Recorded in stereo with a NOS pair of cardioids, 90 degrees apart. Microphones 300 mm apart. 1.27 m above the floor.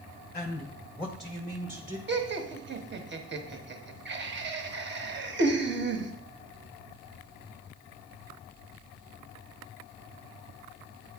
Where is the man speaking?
25° left, 0.9 m; by 2.0 s 15° right, 1.3 m.